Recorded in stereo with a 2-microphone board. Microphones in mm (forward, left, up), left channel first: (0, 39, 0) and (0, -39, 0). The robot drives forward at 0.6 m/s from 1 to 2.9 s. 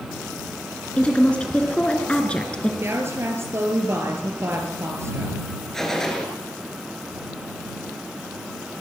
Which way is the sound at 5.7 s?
5° left (ahead or behind).